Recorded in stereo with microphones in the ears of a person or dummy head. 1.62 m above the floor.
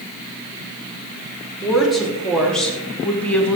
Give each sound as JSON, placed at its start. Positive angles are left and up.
{"t": 1.6, "sound": "a woman speaking", "side_deg": 0, "distance_m": 3.0}